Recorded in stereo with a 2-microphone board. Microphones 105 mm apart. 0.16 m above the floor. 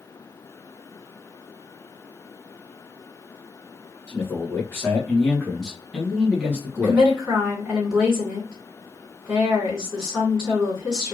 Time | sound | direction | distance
4.1 | a man speaking | 25° left (ahead or behind) | 1.8 m
6.8 | a woman speaking | 10° right (ahead or behind) | 1.7 m